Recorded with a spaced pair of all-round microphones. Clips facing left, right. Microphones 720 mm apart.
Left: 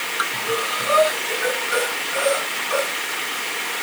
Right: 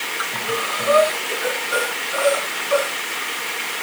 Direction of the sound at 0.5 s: 50° left (ahead or behind).